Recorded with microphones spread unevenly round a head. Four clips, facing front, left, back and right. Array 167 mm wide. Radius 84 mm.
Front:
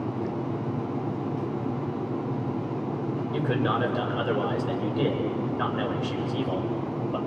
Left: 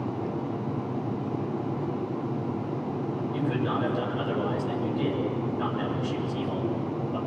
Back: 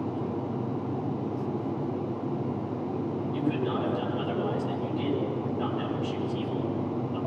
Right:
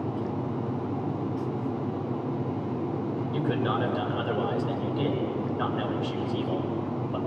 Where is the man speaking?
15° right, 5.5 m.